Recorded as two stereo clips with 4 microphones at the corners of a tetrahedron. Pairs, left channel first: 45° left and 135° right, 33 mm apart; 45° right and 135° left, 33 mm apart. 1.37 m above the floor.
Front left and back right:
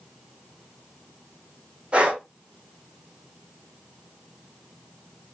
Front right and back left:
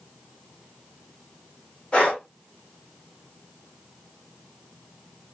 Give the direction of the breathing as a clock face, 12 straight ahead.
3 o'clock.